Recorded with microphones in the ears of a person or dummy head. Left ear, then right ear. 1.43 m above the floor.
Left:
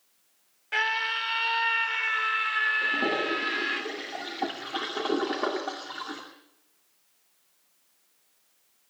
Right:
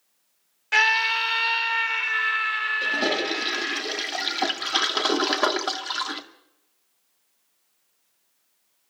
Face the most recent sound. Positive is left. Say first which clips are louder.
# right 2 dB
turn(degrees=-70)  # may be behind; listen again after turning